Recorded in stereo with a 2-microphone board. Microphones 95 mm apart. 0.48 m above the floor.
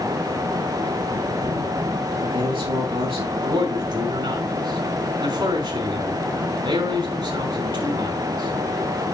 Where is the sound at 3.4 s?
55° right (ahead or behind), 4 m.